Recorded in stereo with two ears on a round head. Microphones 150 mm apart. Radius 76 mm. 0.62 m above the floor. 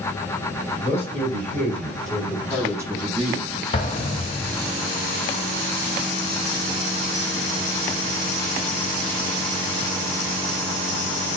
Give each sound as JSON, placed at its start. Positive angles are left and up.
{"t": 0.8, "sound": "a man speaking", "side_deg": 15, "distance_m": 3.0}
{"t": 3.7, "sound": "an explosion", "side_deg": 35, "distance_m": 0.7}